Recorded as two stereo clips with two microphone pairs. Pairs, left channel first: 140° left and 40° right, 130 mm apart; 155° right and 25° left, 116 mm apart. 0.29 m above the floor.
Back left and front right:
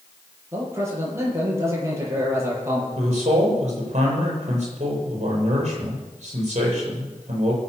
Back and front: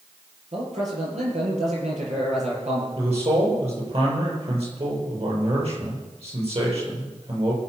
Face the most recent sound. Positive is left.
turn(degrees=-10)